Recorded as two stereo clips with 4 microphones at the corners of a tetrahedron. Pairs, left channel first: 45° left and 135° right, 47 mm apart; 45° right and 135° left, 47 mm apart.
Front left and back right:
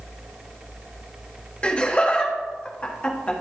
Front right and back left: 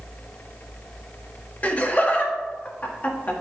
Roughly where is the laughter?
Ahead.